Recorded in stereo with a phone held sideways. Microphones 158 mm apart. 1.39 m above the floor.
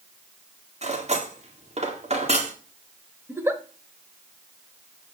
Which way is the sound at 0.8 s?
45° right (ahead or behind).